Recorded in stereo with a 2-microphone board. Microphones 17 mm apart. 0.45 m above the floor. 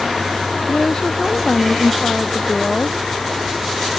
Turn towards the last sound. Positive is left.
turn(degrees=35)  # may be behind; listen again after turning